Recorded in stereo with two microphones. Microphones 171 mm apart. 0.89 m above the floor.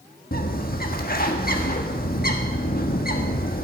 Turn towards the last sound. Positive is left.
turn(degrees=60)  # may be behind; listen again after turning